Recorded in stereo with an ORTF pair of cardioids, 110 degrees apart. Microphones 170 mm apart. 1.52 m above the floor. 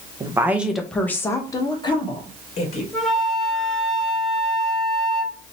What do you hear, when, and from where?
0.2 s a woman speaking: 20° right, 0.8 m; by 2.8 s 40° left, 1.7 m
2.9 s a flute: straight ahead, 1.0 m